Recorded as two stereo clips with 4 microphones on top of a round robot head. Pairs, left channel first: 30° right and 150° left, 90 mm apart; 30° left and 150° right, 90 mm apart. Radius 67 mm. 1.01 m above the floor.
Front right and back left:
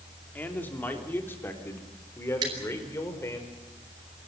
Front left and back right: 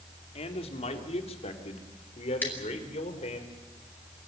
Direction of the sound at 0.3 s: 40° left.